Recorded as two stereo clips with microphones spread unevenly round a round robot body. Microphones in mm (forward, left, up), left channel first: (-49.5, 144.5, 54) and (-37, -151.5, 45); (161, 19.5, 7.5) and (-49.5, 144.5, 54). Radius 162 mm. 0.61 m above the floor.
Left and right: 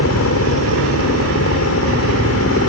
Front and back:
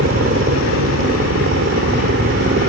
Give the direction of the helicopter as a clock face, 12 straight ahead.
8 o'clock.